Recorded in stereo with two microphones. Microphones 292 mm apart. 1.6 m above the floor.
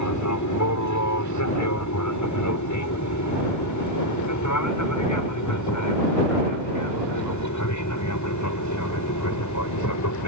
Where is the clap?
No clap in this recording.